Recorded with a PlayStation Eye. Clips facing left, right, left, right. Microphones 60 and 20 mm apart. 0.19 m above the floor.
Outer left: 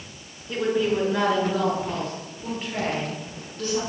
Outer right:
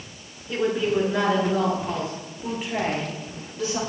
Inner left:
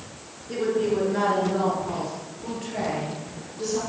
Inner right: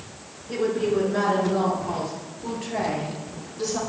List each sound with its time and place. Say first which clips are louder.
0.5 s a woman speaking: even, even; centre (ahead or behind), 2 m; by 3.8 s 10° right (ahead or behind), 4 m